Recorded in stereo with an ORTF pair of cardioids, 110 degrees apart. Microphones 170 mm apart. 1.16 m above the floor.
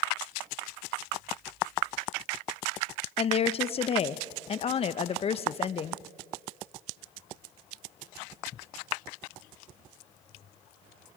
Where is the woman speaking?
35° left, 0.7 m.